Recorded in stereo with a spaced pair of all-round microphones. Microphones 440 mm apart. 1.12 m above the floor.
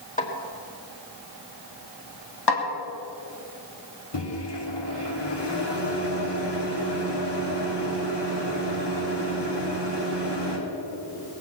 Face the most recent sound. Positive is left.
turn(degrees=65)  # may be behind; listen again after turning